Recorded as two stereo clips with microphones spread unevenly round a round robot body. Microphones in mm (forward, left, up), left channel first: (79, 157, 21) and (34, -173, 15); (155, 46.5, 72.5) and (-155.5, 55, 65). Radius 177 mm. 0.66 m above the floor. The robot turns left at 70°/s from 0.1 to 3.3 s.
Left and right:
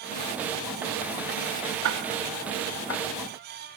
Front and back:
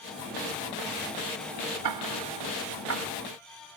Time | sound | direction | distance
1.8 | ticking | 150° right | ?